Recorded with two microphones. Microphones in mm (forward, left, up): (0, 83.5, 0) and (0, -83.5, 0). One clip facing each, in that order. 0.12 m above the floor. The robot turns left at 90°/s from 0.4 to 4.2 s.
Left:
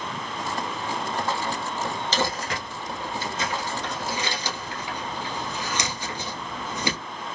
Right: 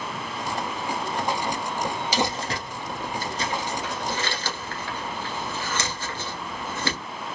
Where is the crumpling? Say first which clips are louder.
Even; 10° right (ahead or behind), 1.0 m; by 7.0 s 15° left (ahead or behind), 1.0 m.